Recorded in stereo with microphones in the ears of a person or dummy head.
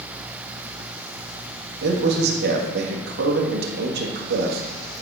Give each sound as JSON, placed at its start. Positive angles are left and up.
{"t": 1.8, "sound": "a man speaking", "side_deg": -65, "distance_m": 1.8}